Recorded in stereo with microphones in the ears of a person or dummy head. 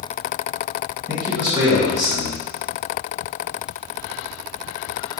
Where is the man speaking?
20° right (ahead or behind), 1.8 m.